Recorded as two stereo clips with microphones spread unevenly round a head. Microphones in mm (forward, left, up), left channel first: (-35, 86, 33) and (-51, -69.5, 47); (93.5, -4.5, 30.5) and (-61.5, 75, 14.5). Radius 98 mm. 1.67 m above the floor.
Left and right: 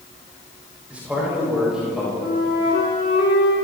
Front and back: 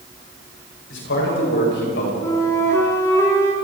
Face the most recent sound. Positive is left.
turn(degrees=45)